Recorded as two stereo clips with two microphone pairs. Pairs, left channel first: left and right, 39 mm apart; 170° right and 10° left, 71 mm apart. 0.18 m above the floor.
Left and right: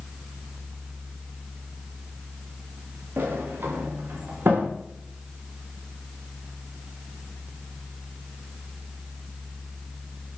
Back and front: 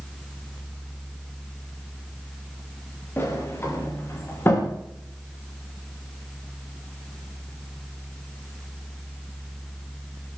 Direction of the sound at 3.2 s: 110° right.